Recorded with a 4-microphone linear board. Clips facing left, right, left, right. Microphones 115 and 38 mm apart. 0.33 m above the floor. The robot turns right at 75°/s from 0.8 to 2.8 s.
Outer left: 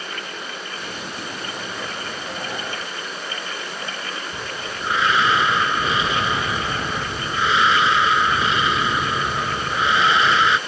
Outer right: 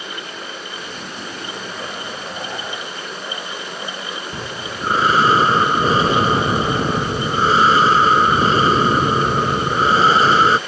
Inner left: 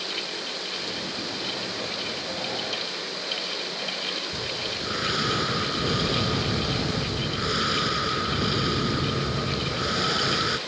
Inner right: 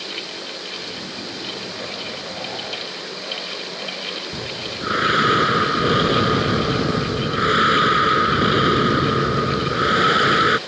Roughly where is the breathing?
Right.